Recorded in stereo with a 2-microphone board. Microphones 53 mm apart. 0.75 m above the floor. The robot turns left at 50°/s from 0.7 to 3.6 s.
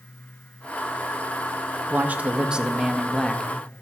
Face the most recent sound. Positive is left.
turn(degrees=155)